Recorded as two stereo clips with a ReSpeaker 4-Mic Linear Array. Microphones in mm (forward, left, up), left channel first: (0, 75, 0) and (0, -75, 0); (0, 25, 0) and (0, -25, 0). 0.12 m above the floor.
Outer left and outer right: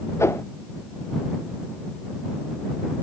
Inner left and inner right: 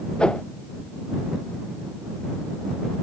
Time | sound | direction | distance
0.2 | a whoosh | 20° left (ahead or behind) | ?